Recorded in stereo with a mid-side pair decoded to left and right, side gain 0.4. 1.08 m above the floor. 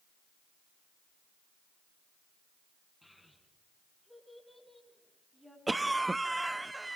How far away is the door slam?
I don't hear a door slam.